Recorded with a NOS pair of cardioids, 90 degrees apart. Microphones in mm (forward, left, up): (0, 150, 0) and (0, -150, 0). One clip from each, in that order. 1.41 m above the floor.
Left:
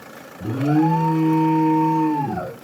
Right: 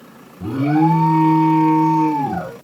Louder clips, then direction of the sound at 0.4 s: Right 3 dB; 25° right.